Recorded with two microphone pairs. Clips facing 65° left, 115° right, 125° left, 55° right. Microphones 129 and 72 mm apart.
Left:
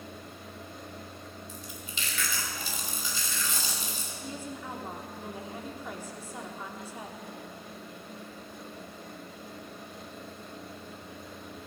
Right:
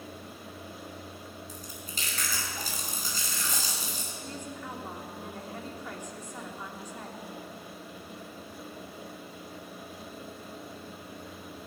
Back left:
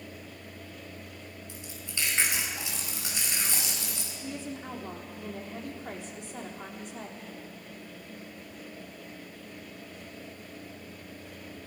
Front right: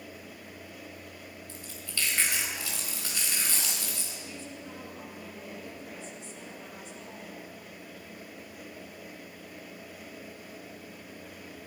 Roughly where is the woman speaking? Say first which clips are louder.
Left 2 dB, back left 5 dB; behind left.